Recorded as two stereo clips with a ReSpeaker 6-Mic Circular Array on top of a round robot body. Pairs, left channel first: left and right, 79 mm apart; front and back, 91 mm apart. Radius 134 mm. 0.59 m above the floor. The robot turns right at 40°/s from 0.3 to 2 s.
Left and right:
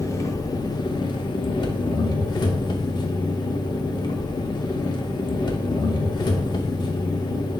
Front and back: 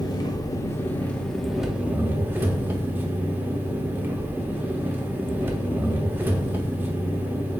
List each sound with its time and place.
0.0 s an engine running: 45° left, 0.7 m; by 7.6 s 110° left, 0.7 m